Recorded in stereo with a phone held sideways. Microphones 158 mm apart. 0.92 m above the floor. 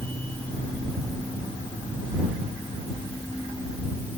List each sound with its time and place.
0.0 s a machine running: 10° left (ahead or behind)